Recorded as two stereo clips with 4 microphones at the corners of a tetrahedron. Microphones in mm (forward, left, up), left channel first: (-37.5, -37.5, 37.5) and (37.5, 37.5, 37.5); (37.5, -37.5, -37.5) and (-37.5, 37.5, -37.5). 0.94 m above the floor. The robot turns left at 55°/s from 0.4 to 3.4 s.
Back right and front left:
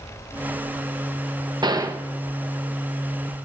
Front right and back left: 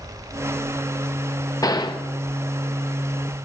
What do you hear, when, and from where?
1.6 s a gunshot: 5° left, 0.6 m; by 2.0 s 20° right, 0.6 m